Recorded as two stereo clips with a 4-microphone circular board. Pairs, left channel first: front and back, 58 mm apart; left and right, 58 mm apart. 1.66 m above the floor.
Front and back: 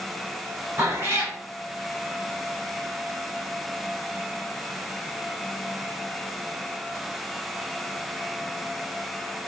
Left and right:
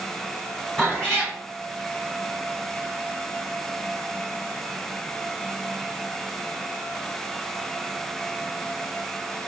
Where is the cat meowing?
165° left, 1.6 m.